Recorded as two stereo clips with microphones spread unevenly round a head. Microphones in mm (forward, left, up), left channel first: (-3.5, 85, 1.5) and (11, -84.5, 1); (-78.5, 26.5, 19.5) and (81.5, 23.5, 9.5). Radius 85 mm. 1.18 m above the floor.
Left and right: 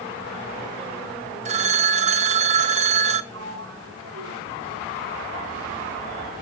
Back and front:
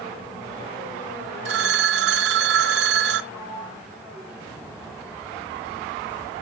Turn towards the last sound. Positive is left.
turn(degrees=-85)